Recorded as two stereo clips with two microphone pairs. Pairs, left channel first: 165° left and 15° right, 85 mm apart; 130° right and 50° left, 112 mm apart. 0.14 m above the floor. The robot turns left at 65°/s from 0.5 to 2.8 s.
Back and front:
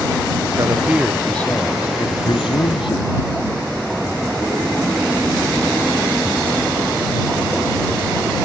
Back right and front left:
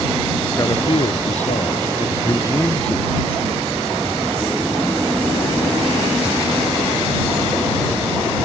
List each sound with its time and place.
0.6 s a man speaking: 65° right; by 3.4 s 150° left